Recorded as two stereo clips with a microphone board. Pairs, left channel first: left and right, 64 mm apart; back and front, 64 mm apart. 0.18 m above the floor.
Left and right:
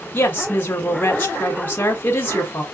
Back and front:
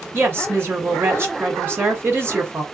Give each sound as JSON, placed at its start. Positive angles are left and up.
{"t": 0.1, "sound": "a woman speaking", "azimuth_deg": 40, "distance_m": 1.5}